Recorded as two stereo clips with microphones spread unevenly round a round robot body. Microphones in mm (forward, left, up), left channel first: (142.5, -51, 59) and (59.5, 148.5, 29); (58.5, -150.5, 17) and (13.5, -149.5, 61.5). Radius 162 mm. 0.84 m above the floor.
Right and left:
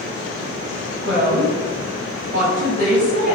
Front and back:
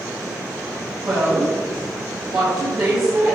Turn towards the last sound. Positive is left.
turn(degrees=165)